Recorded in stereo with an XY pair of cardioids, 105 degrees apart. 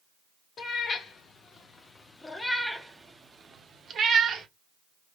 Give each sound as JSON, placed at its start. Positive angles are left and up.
{"t": 0.6, "sound": "a cat meowing", "azimuth_deg": 55, "distance_m": 1.6}